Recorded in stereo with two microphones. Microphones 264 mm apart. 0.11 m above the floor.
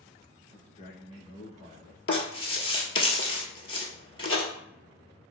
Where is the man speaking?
25° left (ahead or behind), 1.1 m.